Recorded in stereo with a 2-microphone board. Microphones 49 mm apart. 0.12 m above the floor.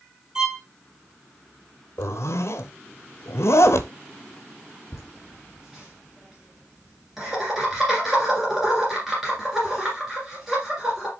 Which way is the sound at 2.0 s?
65° left (ahead or behind).